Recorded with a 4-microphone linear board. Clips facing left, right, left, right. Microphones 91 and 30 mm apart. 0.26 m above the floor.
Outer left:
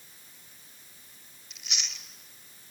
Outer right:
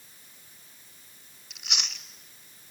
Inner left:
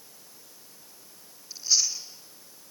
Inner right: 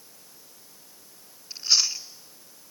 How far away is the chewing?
About 1.1 m.